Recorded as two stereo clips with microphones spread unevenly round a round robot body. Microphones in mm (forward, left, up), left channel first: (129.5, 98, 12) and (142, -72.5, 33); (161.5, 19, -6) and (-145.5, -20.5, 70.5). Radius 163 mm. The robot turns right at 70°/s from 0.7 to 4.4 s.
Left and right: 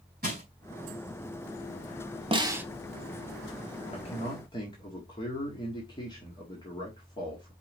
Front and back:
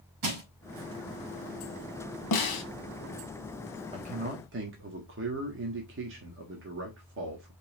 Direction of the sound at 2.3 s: 25° right.